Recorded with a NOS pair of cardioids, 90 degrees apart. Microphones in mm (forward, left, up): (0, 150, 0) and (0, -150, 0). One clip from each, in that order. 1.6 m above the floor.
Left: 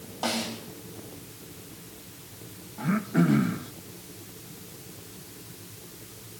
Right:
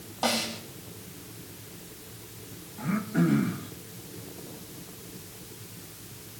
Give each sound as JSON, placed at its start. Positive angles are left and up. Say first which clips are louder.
{"t": 0.2, "sound": "a snare drum", "louder": "right 2 dB", "azimuth_deg": -20, "distance_m": 4.5}
{"t": 2.8, "sound": "throat clearing", "louder": "left 2 dB", "azimuth_deg": 25, "distance_m": 1.5}